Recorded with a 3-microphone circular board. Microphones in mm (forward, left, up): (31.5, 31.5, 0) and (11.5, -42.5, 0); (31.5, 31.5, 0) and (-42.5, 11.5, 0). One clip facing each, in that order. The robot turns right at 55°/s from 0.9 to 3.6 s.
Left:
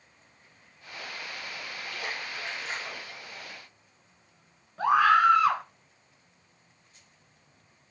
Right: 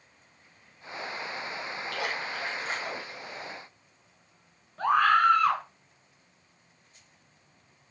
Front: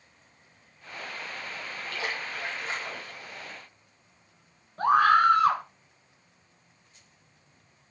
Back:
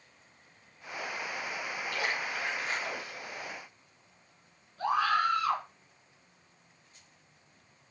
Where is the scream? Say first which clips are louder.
Left 1 dB, front 8 dB; 5° right, 2 m.